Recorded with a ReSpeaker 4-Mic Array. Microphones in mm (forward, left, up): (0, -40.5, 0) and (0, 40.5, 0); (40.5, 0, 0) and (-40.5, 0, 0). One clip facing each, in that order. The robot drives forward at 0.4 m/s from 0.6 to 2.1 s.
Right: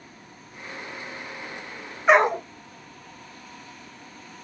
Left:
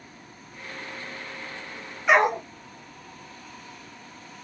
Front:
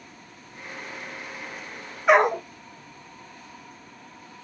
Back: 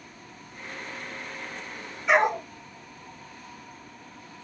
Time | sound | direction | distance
2.1 | a dog barking | 35° right | 0.9 m